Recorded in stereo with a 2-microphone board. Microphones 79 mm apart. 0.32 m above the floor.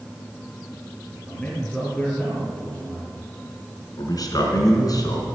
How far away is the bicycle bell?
I don't hear a bicycle bell.